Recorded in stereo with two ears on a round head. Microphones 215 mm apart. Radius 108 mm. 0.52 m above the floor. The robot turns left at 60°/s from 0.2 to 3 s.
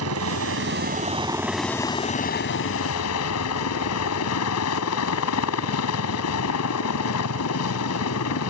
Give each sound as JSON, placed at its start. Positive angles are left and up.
{"t": 0.0, "sound": "a helicopter", "azimuth_deg": -95}